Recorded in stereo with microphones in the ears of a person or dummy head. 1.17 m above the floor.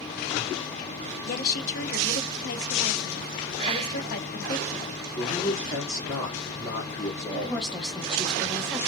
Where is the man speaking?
15° left (ahead or behind), 1.2 m.